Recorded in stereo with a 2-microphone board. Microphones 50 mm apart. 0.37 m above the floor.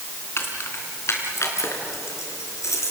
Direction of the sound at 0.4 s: 50° left (ahead or behind).